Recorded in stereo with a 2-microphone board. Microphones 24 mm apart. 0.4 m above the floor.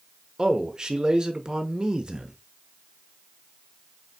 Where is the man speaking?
30° right (ahead or behind), 0.8 m.